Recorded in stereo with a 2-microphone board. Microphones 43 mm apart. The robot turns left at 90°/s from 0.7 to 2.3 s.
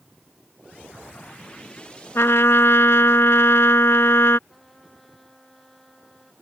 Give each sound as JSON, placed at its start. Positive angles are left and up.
{"t": 2.1, "sound": "a trumpet", "side_deg": 75}
{"t": 4.5, "sound": "a trumpet", "side_deg": 0}